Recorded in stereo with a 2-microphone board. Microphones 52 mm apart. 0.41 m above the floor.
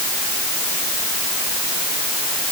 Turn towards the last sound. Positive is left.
No sound to turn to.